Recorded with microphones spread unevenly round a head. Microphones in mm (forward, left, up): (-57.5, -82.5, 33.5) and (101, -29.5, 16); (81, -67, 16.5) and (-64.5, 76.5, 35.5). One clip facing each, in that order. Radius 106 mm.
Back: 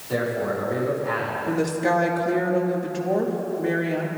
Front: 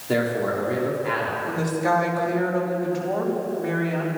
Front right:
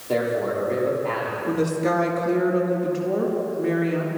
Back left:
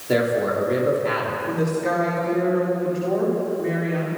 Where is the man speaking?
65° left, 6 m.